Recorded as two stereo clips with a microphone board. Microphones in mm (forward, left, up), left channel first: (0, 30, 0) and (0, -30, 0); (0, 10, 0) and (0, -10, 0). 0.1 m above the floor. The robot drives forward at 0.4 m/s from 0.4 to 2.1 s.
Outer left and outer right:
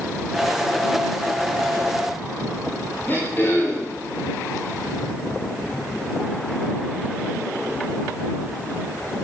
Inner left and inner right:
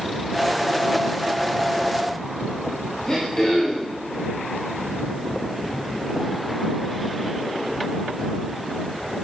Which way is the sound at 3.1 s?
30° left (ahead or behind).